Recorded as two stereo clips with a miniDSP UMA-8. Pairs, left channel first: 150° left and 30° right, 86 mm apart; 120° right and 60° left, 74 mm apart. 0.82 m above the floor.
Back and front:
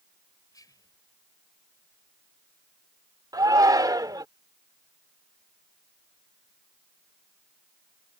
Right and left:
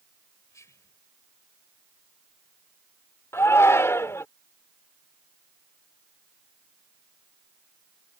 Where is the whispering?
165° right.